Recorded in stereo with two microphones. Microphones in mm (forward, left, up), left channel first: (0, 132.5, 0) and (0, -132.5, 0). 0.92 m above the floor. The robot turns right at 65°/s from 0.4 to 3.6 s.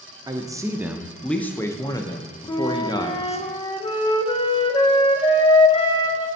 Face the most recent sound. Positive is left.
turn(degrees=20)  # may be behind; listen again after turning